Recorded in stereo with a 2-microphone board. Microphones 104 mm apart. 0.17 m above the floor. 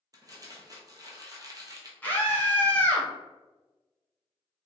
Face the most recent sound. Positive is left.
turn(degrees=15)  # may be behind; listen again after turning